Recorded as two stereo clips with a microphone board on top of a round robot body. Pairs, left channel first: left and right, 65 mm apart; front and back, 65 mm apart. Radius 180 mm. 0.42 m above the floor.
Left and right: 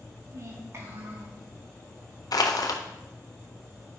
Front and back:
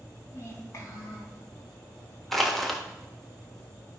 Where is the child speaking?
45° right, 3.5 m; by 1.4 s 35° right, 4.5 m.